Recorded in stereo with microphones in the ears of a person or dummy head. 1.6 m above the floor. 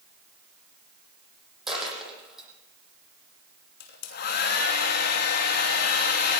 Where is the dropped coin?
Centre (ahead or behind), 10 m.